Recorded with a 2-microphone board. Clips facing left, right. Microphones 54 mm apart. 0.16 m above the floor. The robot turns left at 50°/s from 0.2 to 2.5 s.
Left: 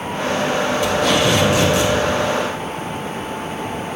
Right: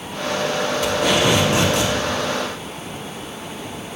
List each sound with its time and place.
0.8 s tape being pulled: 5° left, 6 m; by 1.9 s 50° right, 6 m